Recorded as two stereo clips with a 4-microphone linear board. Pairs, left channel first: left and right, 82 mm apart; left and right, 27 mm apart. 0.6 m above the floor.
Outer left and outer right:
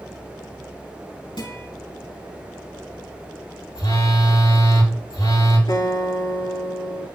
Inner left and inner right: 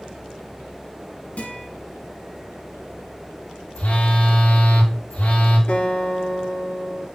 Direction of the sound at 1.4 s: 70° left (ahead or behind).